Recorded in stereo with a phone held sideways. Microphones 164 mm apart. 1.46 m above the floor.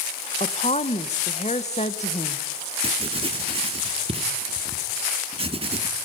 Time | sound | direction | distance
0.4 | a woman speaking | 45° left (ahead or behind) | 1.7 m
2.8 | writing | 35° right (ahead or behind) | 2.0 m